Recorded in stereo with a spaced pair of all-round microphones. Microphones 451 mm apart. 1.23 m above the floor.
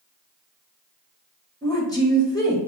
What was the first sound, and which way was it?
A woman speaking, 10° left (ahead or behind).